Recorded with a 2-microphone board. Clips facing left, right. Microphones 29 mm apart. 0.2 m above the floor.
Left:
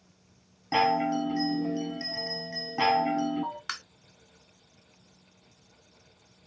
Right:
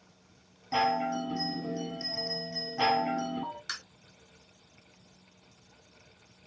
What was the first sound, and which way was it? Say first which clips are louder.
A chime: left 3 dB; 40° left (ahead or behind).